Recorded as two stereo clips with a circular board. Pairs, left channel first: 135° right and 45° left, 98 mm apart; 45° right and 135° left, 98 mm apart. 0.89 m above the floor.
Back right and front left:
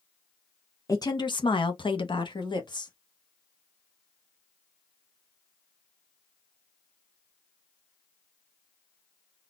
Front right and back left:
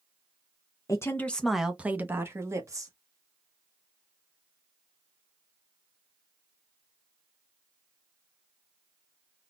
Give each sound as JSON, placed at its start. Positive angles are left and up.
{"t": 0.9, "sound": "a woman speaking", "azimuth_deg": -90, "distance_m": 0.7}